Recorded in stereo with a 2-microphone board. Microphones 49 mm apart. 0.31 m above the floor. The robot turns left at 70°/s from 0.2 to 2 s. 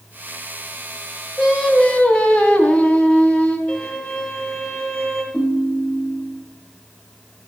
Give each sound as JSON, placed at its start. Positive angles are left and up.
{"t": 1.4, "sound": "singing", "azimuth_deg": -160, "distance_m": 3.0}
{"t": 3.7, "sound": "a violin", "side_deg": 15, "distance_m": 5.5}
{"t": 5.3, "sound": "a ringtone", "side_deg": 15, "distance_m": 4.5}